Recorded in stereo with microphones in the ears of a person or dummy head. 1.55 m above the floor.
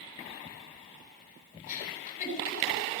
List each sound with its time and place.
1.7 s a giggle: 50° left (ahead or behind), 7 m